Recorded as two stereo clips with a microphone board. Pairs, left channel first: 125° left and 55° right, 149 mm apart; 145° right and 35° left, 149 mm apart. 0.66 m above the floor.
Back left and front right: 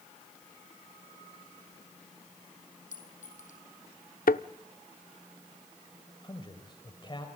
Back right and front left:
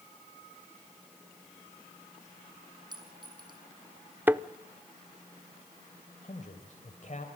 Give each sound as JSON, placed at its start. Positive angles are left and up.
{"t": 2.9, "sound": "a clink", "azimuth_deg": 95, "distance_m": 4.5}
{"t": 4.3, "sound": "a thud", "azimuth_deg": 110, "distance_m": 0.5}
{"t": 6.2, "sound": "a man speaking", "azimuth_deg": 180, "distance_m": 2.5}